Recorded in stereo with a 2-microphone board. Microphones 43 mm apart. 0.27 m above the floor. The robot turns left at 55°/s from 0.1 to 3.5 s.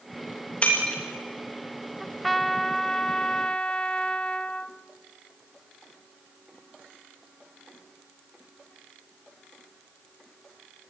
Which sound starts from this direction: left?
Breaking glass, at 0.6 s.